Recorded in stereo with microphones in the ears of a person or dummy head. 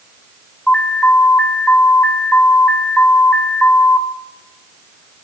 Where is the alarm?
5° left (ahead or behind), 3 m.